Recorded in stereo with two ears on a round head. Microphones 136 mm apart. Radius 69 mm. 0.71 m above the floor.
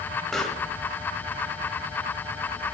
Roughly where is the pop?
Centre.